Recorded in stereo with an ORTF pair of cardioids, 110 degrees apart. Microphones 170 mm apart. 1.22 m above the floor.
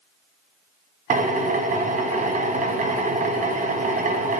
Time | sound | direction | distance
1.1 | a drill | 50° right | 1.0 m